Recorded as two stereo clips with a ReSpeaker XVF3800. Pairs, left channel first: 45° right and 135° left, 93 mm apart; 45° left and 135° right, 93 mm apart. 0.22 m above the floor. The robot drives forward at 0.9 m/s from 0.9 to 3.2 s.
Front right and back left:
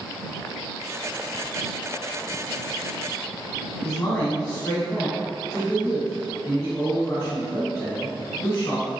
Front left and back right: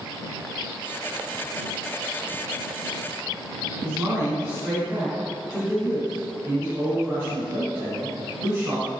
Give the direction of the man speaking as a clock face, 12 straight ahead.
3 o'clock.